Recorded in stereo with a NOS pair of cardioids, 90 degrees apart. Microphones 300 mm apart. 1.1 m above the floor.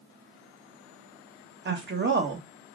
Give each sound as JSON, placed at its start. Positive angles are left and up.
{"t": 1.6, "sound": "a woman speaking", "azimuth_deg": -40, "distance_m": 1.2}